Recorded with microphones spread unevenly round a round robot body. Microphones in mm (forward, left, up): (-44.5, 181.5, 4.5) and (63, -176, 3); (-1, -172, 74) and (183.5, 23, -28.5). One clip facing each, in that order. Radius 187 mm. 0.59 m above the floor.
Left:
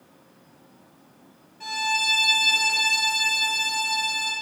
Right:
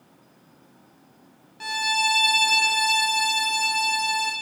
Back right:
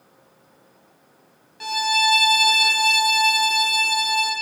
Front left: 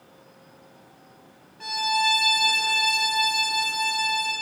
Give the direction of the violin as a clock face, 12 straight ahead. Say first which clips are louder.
Right 2 dB, back right 3 dB; 3 o'clock.